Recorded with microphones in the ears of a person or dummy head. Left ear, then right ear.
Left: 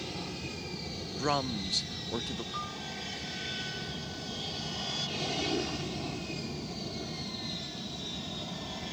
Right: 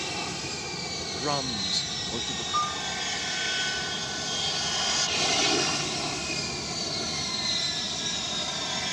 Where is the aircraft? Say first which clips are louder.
Right 7 dB; 50° right (ahead or behind); by 8.9 s 55° right (ahead or behind).